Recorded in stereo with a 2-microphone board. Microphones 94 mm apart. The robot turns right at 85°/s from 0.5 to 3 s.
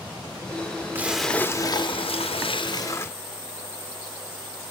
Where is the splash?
20° right, 0.9 m; by 3.1 s 155° left, 0.9 m.